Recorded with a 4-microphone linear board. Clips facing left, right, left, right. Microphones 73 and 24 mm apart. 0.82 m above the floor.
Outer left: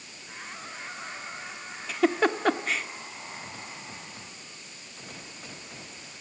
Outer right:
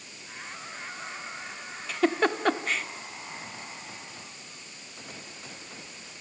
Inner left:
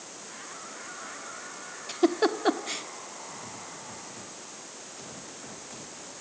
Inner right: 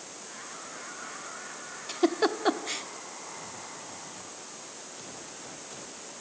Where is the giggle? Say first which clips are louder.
Outer left 1 dB, inner left 1 dB; centre (ahead or behind), 0.9 m.